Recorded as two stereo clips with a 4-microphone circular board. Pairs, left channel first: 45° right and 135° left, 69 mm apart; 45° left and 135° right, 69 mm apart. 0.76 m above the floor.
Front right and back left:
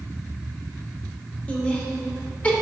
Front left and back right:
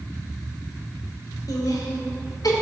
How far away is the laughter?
About 2.5 m.